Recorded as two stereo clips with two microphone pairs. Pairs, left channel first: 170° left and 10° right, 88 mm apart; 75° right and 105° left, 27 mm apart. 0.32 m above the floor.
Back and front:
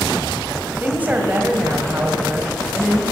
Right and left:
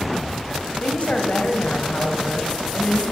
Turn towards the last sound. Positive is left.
turn(degrees=-75)